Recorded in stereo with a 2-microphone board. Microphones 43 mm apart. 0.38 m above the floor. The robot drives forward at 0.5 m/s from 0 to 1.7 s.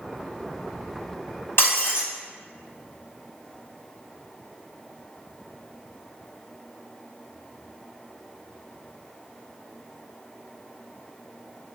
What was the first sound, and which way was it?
Breaking glass, 65° left (ahead or behind).